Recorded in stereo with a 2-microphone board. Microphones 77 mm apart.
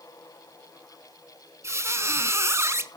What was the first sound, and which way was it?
A squeak, 40° right (ahead or behind).